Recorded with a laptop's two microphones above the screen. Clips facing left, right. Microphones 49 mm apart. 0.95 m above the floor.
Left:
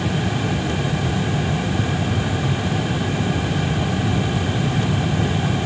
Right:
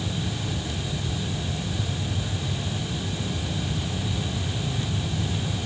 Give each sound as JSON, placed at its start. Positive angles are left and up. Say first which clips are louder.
{"t": 0.0, "sound": "a fan", "louder": "left 9 dB", "side_deg": 65, "distance_m": 0.8}